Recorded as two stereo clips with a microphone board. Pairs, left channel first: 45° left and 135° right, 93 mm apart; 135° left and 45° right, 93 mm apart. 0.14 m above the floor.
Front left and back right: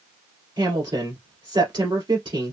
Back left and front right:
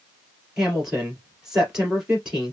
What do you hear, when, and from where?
0.6 s a woman speaking: 125° right, 2.5 m